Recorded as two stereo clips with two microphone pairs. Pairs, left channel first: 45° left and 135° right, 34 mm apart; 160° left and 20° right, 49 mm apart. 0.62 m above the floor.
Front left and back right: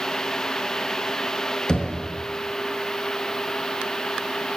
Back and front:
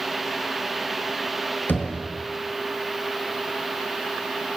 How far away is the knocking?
About 5 m.